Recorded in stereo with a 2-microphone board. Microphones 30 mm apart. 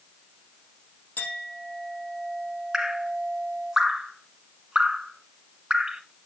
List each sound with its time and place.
1.2 s a clink: 75° left (ahead or behind), 4 m
2.7 s dripping: 25° right (ahead or behind), 1.2 m